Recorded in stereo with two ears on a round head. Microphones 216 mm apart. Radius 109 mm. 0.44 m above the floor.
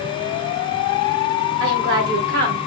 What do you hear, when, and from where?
1.6 s a woman speaking: 55° right (ahead or behind), 2 m; by 2.7 s 45° right (ahead or behind), 1.8 m